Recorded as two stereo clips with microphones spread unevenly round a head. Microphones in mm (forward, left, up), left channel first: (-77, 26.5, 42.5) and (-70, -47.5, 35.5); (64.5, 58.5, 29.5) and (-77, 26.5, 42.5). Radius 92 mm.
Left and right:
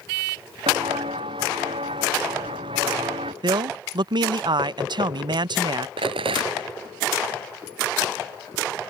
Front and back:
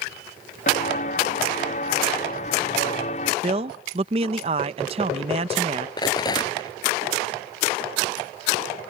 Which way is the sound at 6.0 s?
55° right.